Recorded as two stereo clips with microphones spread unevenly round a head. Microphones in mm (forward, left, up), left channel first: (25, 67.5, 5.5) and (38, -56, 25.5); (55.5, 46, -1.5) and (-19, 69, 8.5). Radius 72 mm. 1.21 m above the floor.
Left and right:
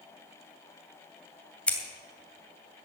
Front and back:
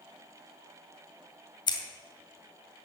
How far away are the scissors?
About 2.5 m.